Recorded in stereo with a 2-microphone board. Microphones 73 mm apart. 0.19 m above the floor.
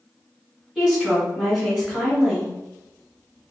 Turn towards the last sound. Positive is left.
turn(degrees=-10)  # may be behind; listen again after turning